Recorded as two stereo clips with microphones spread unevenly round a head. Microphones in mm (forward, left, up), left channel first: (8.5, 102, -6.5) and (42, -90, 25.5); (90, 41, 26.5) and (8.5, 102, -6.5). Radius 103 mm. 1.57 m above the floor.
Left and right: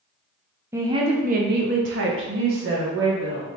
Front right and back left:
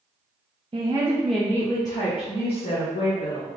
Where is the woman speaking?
150° right, 0.7 m; by 3.5 s 65° right, 1.6 m.